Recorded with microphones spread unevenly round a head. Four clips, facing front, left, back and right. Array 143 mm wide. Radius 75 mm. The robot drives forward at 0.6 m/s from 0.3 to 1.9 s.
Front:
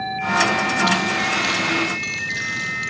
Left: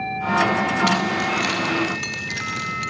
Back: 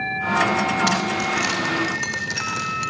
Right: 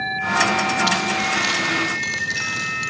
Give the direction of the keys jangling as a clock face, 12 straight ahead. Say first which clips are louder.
Left 1 dB, front 1 dB; 6 o'clock.